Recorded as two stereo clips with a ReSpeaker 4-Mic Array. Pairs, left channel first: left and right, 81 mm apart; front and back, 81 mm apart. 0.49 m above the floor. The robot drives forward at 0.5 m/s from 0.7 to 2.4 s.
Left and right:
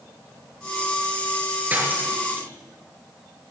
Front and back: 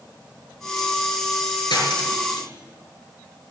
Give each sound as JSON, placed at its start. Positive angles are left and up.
{"t": 1.7, "sound": "cutlery clinking", "azimuth_deg": -25, "distance_m": 5.0}